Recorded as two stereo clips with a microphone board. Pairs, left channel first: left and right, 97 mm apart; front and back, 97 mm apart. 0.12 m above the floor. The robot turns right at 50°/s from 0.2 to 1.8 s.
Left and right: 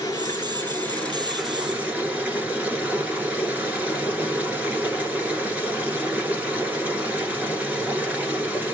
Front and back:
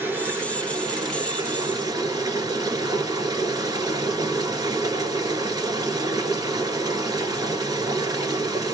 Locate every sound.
0.0 s running water: 120° left, 1.6 m; by 8.8 s 160° right, 1.6 m